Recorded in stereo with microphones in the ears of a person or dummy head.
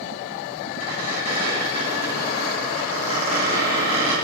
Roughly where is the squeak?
Left.